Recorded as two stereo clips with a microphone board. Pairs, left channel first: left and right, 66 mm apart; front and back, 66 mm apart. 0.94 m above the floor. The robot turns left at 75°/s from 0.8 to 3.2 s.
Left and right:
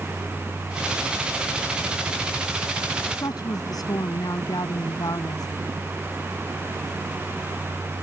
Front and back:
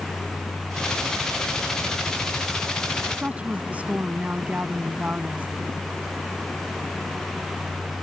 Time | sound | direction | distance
3.1 | a woman speaking | 115° left | ?